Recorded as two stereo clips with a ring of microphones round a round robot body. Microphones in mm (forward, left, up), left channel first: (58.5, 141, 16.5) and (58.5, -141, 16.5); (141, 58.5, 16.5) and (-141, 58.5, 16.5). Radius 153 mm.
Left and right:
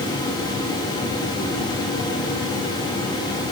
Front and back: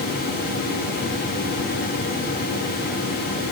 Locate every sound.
Only background noise.